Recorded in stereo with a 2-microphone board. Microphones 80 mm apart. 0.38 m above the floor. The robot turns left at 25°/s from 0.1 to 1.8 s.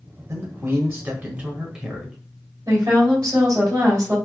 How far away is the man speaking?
About 1.4 m.